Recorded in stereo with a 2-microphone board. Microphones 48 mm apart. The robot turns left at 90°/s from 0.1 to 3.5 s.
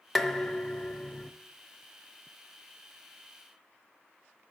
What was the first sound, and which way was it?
Dishes clattering, 5° left (ahead or behind).